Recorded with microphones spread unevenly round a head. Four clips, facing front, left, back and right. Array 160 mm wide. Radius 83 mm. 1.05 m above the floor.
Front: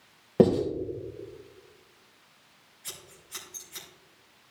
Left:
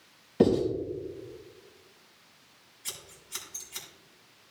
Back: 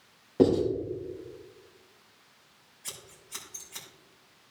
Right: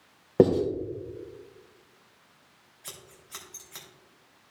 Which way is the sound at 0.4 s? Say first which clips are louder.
Right 3 dB, front 1 dB; 65° right.